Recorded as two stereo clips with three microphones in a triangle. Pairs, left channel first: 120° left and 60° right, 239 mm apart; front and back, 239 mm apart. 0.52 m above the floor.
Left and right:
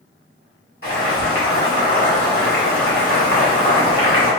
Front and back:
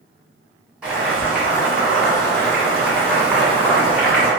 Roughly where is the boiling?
Left.